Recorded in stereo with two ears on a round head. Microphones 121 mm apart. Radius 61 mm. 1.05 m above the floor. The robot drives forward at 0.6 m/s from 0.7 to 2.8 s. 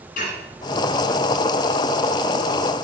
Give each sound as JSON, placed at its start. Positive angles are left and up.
{"t": 0.2, "sound": "dishes clattering", "side_deg": 65, "distance_m": 8.0}